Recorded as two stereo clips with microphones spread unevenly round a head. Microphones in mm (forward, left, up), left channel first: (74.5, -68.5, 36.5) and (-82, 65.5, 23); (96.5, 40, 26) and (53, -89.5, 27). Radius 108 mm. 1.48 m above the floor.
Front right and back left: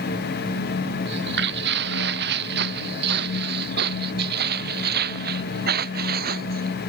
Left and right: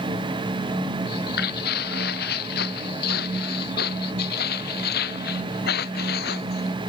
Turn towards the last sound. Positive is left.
turn(degrees=90)